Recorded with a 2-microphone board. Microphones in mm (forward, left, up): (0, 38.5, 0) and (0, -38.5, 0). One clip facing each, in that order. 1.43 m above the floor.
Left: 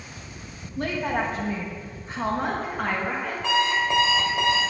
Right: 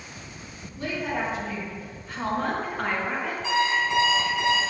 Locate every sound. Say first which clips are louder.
0.8 s a woman speaking: left 3 dB; 60° left (ahead or behind), 1.6 m; by 3.3 s 5° right (ahead or behind), 1.8 m
3.4 s an alarm clock: left 1 dB; 65° left (ahead or behind), 2 m